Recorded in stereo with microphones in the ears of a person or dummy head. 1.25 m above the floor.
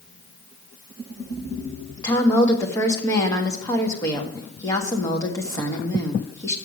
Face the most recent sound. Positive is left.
turn(degrees=15)  # may be behind; listen again after turning